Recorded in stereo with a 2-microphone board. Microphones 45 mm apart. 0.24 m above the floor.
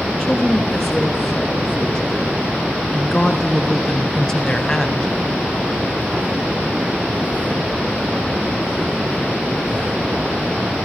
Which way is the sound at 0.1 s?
10° left (ahead or behind).